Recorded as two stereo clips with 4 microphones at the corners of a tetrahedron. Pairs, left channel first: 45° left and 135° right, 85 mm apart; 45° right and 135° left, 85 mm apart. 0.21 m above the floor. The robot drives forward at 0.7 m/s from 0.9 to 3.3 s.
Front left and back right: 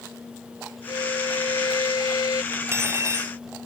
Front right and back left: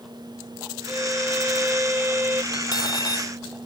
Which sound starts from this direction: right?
Cutlery clinking, at 2.5 s.